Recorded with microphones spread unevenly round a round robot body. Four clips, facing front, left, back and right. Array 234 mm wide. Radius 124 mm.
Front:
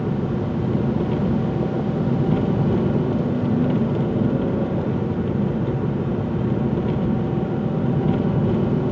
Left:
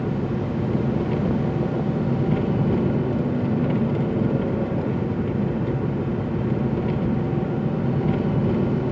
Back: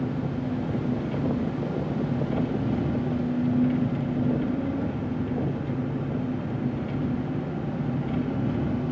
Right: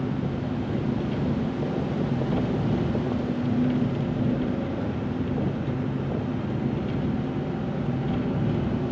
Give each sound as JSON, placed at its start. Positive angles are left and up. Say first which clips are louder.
{"t": 0.0, "sound": "an engine running", "louder": "left 3 dB, front 5 dB", "azimuth_deg": 30, "distance_m": 1.6}